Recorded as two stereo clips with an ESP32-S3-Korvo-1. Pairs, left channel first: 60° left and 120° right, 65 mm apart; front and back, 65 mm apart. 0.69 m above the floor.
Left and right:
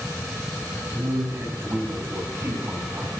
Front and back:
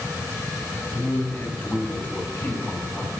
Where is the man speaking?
65° right, 4 m.